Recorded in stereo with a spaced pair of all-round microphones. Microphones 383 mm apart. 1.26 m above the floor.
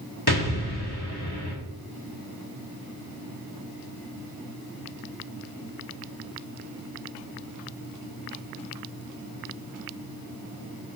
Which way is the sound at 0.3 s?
70° left (ahead or behind).